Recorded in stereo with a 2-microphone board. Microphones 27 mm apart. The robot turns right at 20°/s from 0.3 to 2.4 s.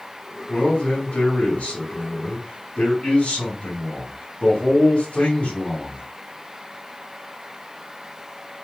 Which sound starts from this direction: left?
A man speaking, at 0.5 s.